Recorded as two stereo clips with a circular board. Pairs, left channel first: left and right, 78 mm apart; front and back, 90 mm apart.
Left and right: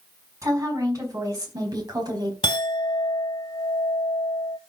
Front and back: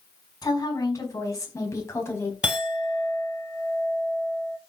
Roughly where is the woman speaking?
Ahead right.